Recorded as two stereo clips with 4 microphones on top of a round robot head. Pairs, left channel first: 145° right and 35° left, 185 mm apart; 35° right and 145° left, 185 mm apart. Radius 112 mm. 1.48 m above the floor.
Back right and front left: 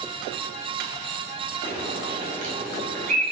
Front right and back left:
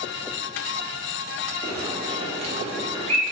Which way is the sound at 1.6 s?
85° left.